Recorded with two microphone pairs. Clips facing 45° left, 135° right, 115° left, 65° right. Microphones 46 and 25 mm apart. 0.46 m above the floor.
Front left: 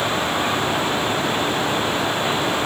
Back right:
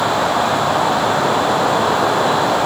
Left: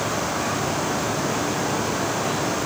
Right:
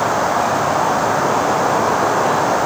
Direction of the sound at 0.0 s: 90° right.